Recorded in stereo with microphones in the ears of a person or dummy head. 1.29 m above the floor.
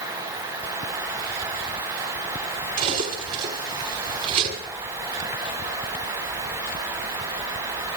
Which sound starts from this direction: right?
Cutlery clinking, at 2.8 s.